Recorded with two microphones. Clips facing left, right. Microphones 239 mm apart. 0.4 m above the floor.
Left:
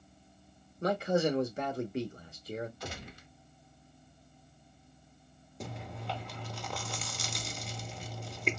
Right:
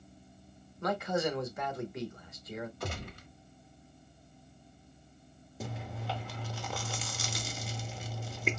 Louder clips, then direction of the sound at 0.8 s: Left 3 dB; 30° left (ahead or behind).